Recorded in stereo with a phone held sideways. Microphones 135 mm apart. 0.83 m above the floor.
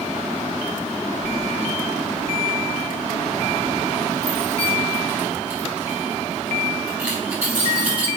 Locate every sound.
1.2 s keys jangling: 65° right (ahead or behind), 1.2 m; by 8.1 s 10° right (ahead or behind), 5.5 m